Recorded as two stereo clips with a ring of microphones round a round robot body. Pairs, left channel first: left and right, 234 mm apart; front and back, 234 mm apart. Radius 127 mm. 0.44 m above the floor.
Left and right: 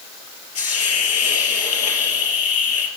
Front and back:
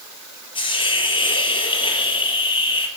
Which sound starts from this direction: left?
A hiss, at 0.6 s.